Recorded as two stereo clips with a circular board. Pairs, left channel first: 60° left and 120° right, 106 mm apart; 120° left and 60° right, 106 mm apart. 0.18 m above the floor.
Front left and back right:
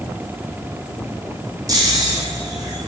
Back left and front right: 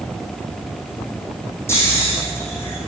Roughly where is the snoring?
Behind.